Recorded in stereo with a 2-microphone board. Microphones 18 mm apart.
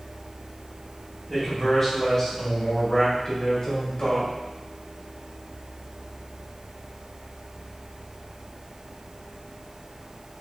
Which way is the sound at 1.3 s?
10° left (ahead or behind).